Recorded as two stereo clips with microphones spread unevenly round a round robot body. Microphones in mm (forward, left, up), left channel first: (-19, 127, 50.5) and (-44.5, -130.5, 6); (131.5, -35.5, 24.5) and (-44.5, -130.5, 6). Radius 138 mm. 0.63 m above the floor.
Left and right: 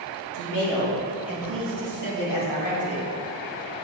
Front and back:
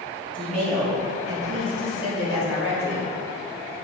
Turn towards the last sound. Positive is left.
turn(degrees=55)